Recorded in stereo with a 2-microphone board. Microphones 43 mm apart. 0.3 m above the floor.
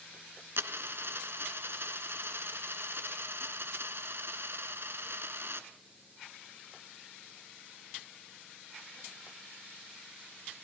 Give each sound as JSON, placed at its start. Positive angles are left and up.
{"t": 0.6, "sound": "a dropped coin", "side_deg": -60, "distance_m": 1.4}